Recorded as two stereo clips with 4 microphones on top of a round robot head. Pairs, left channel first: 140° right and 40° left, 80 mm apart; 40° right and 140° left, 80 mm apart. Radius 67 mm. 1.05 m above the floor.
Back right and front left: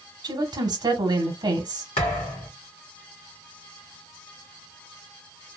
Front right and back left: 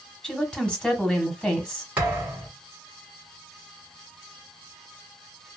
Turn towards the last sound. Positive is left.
turn(degrees=-145)